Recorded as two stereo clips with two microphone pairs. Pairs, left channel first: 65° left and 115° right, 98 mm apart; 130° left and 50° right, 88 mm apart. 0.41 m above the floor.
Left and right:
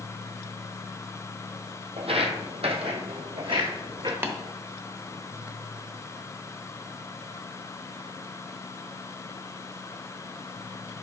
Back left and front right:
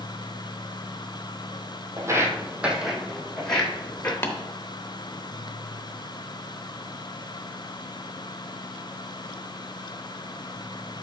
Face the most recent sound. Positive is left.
turn(degrees=-175)